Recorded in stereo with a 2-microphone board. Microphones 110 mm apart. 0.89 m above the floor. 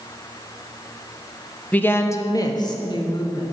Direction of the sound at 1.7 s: 15° left (ahead or behind).